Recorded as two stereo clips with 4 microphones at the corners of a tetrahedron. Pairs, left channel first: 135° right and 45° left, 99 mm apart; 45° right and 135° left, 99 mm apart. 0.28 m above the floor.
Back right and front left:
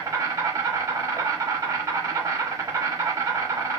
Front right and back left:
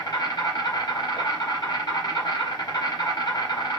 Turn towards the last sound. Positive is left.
turn(degrees=-10)